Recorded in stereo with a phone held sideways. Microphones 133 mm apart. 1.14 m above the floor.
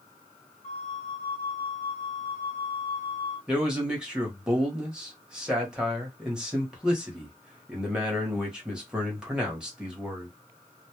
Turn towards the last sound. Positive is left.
turn(degrees=-5)  # may be behind; listen again after turning